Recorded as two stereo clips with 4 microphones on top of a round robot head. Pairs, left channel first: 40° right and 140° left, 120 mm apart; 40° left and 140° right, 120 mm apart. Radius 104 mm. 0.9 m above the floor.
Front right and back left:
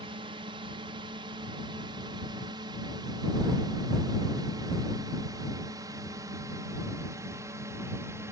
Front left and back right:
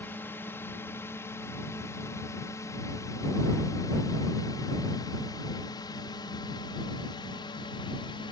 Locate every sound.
0.0 s a drone: 110° left; by 8.3 s 80° left